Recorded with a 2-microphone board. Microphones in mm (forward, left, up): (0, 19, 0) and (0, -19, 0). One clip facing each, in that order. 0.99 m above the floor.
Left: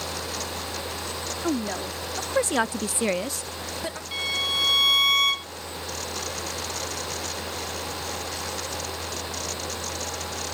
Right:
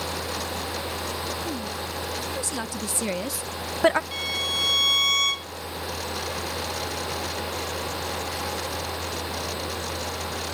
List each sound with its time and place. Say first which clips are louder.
1.4 s a woman speaking: left 4 dB; 65° left (ahead or behind); by 4.0 s 65° right (ahead or behind)
4.1 s a violin: left 1 dB; 10° left (ahead or behind)